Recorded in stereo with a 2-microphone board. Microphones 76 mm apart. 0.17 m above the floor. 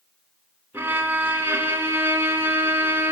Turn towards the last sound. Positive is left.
turn(degrees=-30)  # may be behind; listen again after turning